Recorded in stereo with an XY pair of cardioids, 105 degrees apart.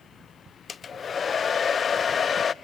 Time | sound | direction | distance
0.7 | a hair dryer | 40° left | 0.6 m